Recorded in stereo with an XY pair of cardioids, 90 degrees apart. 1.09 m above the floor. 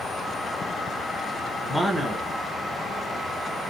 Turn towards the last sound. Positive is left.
turn(degrees=-10)